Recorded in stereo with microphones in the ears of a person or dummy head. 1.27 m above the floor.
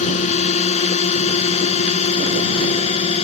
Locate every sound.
0.0 s a drone: 35° left (ahead or behind); by 3.2 s 30° left (ahead or behind)